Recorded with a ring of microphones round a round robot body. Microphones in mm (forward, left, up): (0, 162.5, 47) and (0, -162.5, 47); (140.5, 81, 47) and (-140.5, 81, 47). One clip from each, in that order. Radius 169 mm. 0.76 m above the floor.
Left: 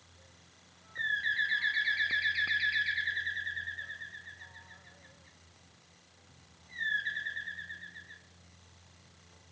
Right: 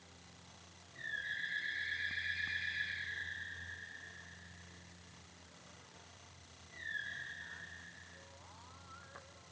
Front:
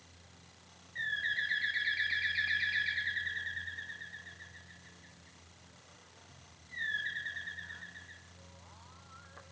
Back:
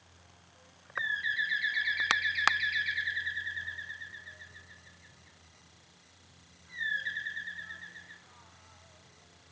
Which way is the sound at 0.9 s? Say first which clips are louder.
Left 10 dB, back 3 dB; 105° left.